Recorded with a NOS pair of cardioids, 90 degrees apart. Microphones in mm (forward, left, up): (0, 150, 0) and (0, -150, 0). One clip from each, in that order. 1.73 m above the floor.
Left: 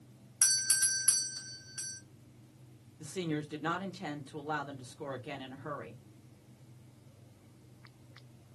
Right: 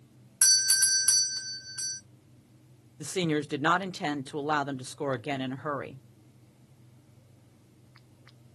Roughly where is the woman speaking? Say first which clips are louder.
Right 8 dB; ahead right.